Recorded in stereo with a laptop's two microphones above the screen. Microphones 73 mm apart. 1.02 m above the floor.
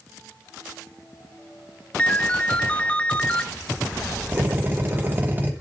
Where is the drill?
30° right (ahead or behind), 3 m.